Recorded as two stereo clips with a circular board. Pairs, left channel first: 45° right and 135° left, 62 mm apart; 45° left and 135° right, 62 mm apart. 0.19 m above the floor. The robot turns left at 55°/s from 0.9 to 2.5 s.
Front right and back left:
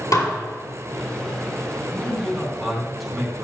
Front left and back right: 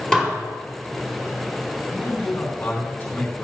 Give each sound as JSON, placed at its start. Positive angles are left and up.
{"t": 0.1, "sound": "dishes clattering", "azimuth_deg": -35, "distance_m": 3.0}
{"t": 1.9, "sound": "a man speaking", "azimuth_deg": 80, "distance_m": 1.9}